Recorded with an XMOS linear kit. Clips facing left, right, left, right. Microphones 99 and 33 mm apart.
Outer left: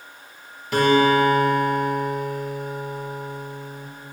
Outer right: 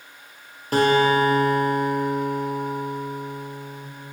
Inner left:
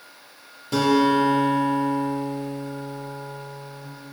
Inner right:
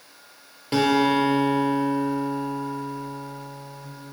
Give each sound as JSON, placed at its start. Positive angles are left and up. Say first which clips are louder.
{"t": 0.7, "sound": "a guitar", "louder": "outer left 1 dB, inner left 1 dB", "side_deg": -35, "distance_m": 3.0}